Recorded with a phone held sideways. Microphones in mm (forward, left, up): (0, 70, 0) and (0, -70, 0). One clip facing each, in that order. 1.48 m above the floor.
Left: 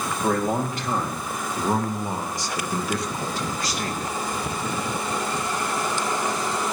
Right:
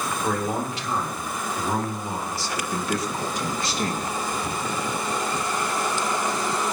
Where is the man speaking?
55° left (ahead or behind), 3.5 m; by 4.2 s 40° right (ahead or behind), 1.9 m.